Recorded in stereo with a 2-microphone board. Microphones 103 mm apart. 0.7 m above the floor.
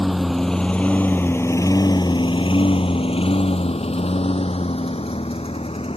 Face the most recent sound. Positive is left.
turn(degrees=75)  # may be behind; listen again after turning